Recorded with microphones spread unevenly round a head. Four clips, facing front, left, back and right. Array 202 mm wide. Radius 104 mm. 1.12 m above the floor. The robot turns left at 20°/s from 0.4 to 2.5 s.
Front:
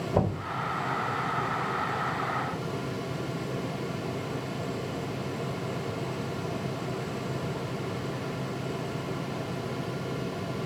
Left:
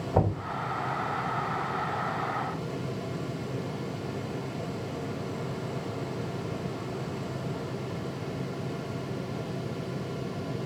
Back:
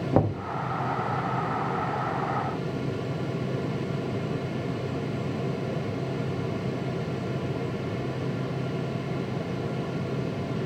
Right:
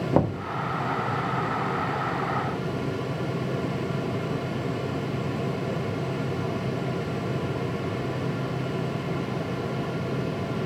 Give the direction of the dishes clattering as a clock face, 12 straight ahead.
I don't hear dishes clattering.